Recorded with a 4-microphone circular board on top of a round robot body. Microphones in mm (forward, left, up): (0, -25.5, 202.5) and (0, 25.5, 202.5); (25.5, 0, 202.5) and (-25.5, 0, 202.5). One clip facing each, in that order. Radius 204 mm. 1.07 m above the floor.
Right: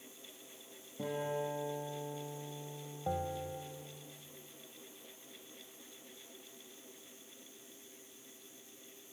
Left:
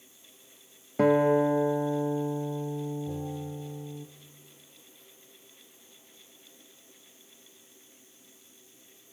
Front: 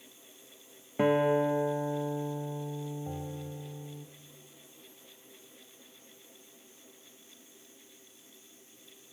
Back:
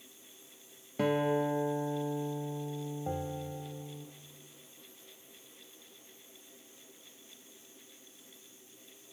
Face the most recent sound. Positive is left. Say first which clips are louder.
# left 1 dB, back 3 dB
turn(degrees=-120)